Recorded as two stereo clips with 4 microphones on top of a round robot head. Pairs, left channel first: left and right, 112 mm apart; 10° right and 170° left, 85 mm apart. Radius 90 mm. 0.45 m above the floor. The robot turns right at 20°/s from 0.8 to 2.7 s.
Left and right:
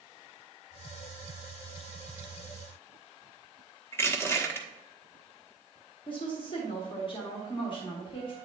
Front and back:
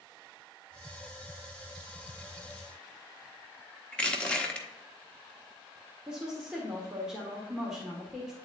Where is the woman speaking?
90° left, 1.5 m.